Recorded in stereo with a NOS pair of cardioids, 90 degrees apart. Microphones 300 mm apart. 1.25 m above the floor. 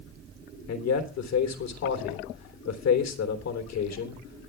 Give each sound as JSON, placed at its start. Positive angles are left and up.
{"t": 0.7, "sound": "a man speaking", "azimuth_deg": 60, "distance_m": 3.5}